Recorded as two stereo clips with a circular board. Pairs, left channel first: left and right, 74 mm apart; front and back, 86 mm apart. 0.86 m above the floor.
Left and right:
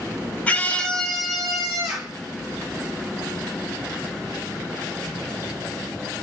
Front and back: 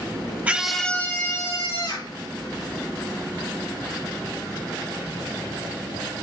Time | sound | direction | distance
0.5 | a scream | 130° left | 1.0 m